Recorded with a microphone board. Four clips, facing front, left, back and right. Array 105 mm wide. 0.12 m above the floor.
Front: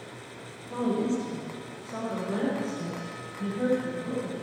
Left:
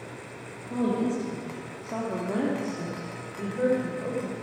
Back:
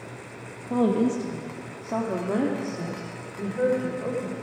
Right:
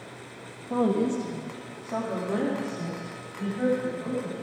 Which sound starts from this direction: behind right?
A woman speaking, at 0.7 s.